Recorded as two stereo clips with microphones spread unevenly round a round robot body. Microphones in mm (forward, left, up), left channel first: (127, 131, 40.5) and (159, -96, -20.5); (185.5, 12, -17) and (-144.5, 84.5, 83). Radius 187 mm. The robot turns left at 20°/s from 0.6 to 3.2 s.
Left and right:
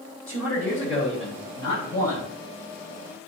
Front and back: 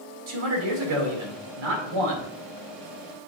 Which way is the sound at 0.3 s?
175° right.